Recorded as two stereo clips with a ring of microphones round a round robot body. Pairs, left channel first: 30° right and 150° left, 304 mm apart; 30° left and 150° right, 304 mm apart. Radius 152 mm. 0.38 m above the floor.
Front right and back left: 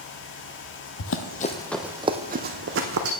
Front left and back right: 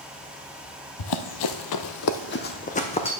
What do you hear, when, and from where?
1.0 s running footsteps: 10° left, 0.8 m; by 3.1 s 105° left, 1.3 m